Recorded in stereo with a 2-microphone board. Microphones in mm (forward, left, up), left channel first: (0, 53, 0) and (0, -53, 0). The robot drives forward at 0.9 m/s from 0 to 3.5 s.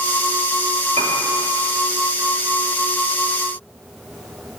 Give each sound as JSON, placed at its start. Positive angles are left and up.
{"t": 1.0, "sound": "a piano", "side_deg": -70, "distance_m": 1.1}